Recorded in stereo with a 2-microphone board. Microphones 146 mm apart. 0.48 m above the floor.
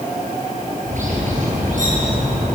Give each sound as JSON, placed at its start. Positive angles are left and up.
{"t": 0.9, "sound": "a bird", "side_deg": -60, "distance_m": 8.0}